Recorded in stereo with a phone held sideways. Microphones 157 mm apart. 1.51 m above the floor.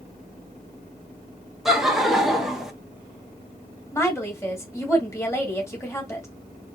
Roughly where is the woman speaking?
Centre.